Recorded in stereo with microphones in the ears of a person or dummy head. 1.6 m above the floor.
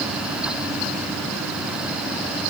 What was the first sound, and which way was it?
Only background noise.